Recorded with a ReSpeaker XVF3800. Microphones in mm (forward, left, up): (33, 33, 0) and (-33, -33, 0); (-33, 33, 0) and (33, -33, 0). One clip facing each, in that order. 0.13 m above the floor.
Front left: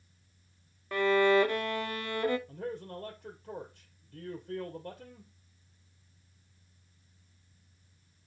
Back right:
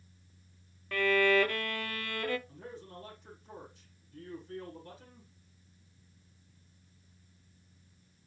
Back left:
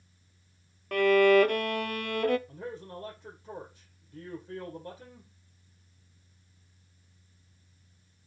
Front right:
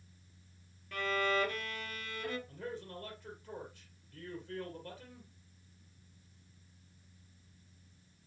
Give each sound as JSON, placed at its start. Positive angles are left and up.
{"t": 0.9, "sound": "a violin", "azimuth_deg": 115, "distance_m": 0.6}
{"t": 2.5, "sound": "a man speaking", "azimuth_deg": 70, "distance_m": 3.0}